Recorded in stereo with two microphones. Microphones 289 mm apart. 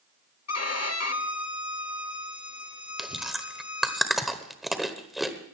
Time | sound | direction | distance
0.5 | a violin | 55° left (ahead or behind) | 0.7 m
3.0 | chewing | centre (ahead or behind) | 1.2 m